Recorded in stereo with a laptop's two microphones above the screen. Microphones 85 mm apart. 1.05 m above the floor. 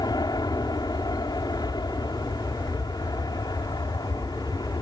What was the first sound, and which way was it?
An aircraft, 60° left (ahead or behind).